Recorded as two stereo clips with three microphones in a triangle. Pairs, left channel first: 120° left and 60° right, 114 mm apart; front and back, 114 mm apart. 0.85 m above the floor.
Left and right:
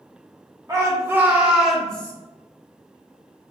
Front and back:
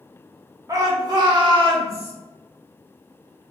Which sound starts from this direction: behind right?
A shout, at 0.7 s.